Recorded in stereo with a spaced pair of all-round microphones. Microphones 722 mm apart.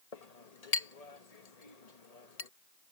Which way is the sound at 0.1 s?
60° left (ahead or behind).